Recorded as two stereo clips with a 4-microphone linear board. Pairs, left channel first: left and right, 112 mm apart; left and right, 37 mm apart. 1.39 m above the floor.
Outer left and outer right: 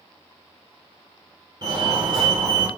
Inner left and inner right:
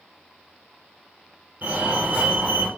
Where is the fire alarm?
40° right (ahead or behind), 1.9 m.